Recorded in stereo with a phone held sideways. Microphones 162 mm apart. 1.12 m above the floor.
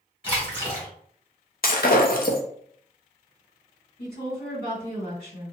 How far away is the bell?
I don't hear a bell.